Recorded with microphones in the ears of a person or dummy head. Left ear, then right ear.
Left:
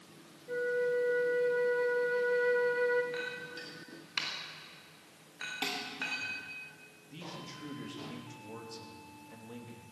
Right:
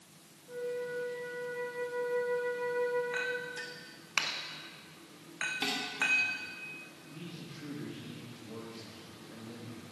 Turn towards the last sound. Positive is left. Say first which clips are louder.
# left 6 dB
turn(degrees=70)  # may be behind; listen again after turning